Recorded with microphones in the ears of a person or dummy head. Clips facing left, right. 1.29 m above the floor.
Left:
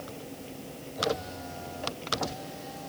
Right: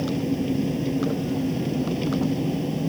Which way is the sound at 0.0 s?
75° right (ahead or behind).